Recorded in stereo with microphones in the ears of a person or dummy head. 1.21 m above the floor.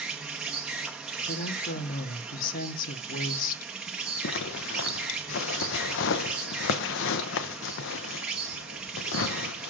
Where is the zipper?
65° left (ahead or behind), 0.5 m.